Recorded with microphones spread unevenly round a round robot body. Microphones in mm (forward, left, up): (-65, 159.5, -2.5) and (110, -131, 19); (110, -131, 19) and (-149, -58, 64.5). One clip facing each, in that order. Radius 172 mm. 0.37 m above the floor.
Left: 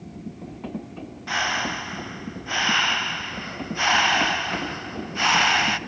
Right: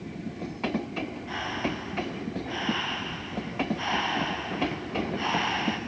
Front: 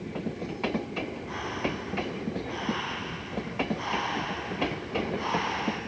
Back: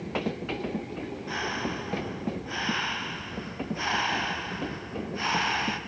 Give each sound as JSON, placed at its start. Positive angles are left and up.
{"t": 1.3, "sound": "breathing", "azimuth_deg": 100, "distance_m": 0.7}